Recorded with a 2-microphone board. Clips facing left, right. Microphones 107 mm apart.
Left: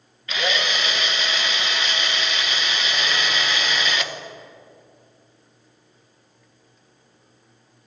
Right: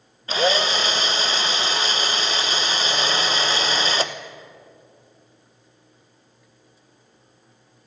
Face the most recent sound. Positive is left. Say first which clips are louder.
# right 5 dB
turn(degrees=-35)  # may be behind; listen again after turning